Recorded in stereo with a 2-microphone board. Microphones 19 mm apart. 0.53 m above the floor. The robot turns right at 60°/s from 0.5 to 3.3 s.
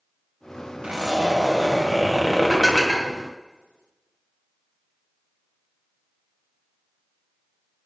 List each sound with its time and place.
0.8 s a zipper: 75° right, 2.5 m; by 2.9 s 45° left, 2.5 m
2.5 s dishes clattering: 5° left (ahead or behind), 2.5 m; by 3.1 s 30° right (ahead or behind), 2.5 m